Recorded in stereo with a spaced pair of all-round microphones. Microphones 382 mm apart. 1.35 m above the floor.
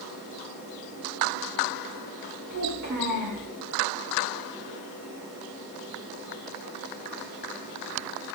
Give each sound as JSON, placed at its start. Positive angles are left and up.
{"t": 2.5, "sound": "a child speaking", "side_deg": -50, "distance_m": 2.5}